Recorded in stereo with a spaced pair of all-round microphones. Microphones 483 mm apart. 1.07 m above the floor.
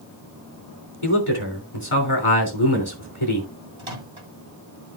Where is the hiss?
I don't hear a hiss.